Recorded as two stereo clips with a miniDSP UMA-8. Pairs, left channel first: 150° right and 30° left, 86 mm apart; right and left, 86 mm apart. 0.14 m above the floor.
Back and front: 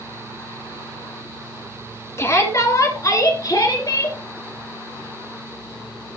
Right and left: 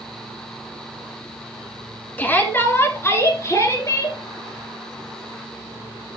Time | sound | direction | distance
2.2 | a shout | 140° right | 1.7 m